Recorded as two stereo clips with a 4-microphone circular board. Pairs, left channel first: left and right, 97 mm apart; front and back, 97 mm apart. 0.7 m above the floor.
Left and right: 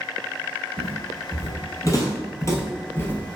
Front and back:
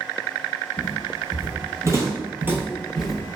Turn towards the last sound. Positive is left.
turn(degrees=60)